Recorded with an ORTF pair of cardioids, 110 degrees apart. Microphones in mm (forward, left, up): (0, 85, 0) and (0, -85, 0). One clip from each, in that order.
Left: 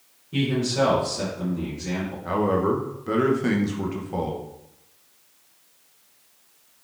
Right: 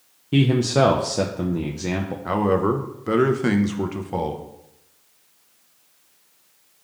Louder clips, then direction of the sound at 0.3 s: Right 5 dB; 65° right.